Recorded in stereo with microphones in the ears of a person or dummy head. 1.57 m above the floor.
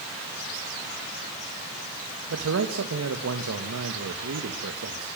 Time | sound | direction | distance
2.3 | a man speaking | 80° right | 1.8 m